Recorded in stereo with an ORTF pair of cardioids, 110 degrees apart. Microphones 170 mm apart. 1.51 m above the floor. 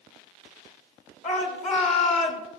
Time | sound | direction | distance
1.2 | a shout | 45° left | 3 m